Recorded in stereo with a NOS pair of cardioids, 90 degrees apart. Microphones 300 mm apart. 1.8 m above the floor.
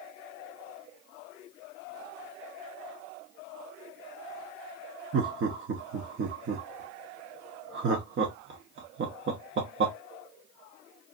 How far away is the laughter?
About 0.9 m.